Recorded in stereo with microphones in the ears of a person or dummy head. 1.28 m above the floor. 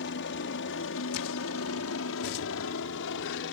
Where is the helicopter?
55° left (ahead or behind); by 3.5 s 60° left (ahead or behind).